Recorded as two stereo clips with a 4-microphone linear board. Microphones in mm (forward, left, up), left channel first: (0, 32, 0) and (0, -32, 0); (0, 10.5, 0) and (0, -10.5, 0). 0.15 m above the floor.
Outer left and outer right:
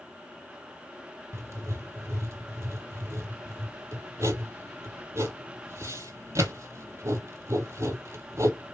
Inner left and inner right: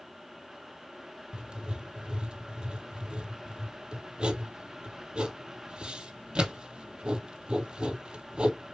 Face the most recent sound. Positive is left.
turn(degrees=-50)  # may be behind; listen again after turning